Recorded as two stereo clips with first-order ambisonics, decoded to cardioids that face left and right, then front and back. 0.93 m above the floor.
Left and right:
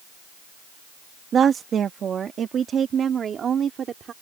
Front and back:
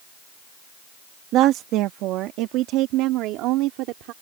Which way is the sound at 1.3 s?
150° right.